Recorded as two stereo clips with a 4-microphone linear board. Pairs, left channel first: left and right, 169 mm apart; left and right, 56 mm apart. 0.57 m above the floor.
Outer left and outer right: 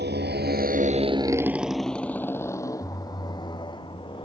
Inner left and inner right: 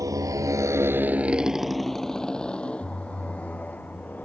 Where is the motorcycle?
85° right; by 4.3 s 30° left (ahead or behind).